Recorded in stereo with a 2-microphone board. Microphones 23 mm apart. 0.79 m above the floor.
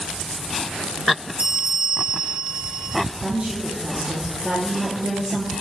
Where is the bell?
80° right, 1.9 m.